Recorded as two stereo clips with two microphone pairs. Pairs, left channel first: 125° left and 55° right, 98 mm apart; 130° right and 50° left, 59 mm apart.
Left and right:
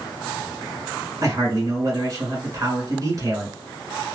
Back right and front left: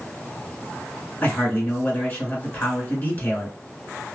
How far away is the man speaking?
About 1.5 m.